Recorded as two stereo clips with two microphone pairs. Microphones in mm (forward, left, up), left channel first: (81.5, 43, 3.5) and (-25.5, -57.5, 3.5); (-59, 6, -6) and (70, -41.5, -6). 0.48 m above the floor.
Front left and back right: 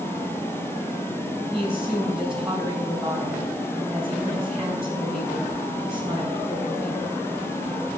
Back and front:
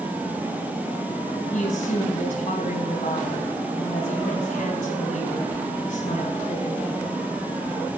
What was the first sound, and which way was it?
A woman speaking, 140° left.